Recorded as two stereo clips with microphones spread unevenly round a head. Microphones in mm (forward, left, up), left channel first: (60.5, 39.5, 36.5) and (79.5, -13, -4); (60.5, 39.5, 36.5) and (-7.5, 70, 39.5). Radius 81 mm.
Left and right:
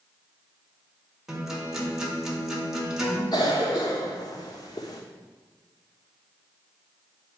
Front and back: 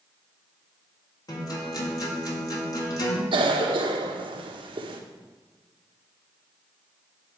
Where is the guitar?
10° left, 2.0 m.